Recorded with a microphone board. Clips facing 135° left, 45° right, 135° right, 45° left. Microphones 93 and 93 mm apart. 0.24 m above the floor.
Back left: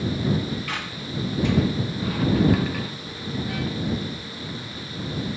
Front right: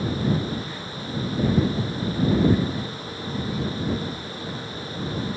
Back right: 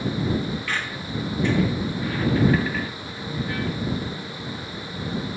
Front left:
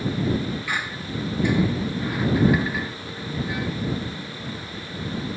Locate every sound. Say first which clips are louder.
0.7 s a squeak: back left 1 dB, even; 120° left